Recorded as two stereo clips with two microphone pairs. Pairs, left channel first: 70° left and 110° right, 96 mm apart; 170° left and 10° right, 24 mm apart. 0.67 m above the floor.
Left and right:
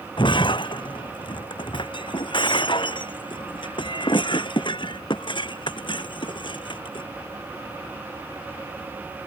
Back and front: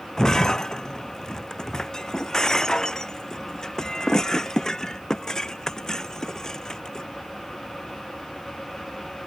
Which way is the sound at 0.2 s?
105° left.